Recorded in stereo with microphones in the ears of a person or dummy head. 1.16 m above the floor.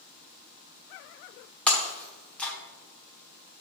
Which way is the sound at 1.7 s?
Centre (ahead or behind).